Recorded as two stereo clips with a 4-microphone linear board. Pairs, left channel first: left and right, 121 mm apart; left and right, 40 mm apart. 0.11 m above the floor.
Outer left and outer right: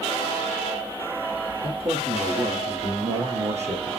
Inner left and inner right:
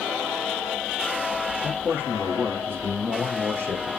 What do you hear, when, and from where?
1.6 s a man speaking: 50° right (ahead or behind), 4.5 m; by 3.9 s 70° right (ahead or behind), 4 m